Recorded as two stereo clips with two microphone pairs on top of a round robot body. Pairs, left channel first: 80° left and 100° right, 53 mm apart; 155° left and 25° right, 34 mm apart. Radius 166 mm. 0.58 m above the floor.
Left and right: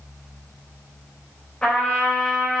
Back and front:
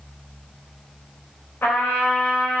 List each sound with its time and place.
1.6 s a trumpet: 150° left, 3.5 m